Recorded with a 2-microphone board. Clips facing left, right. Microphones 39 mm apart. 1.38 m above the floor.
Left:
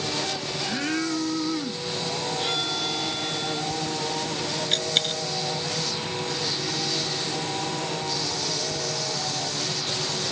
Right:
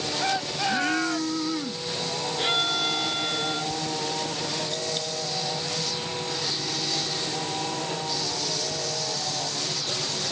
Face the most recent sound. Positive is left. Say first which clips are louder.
# left 5 dB
turn(degrees=65)  # may be behind; listen again after turning